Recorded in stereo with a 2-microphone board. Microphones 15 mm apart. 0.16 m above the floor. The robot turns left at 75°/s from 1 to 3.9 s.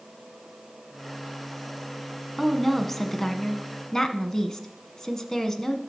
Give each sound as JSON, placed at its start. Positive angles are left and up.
{"t": 2.4, "sound": "a woman speaking", "azimuth_deg": -170, "distance_m": 1.3}